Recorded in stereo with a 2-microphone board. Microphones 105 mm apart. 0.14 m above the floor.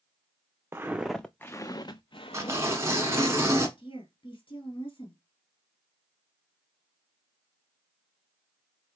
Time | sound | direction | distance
0.7 | footsteps | 25° right (ahead or behind) | 0.5 m
2.3 | tearing paper | 25° right (ahead or behind) | 1.0 m
3.8 | a woman speaking | 55° left (ahead or behind) | 2 m